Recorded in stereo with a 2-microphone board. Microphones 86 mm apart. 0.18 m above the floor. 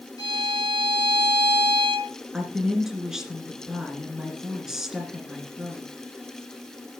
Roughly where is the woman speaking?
Centre.